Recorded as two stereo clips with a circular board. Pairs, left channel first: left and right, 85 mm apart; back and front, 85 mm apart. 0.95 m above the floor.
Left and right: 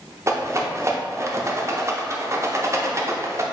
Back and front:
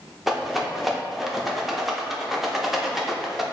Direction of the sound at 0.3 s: 85° right.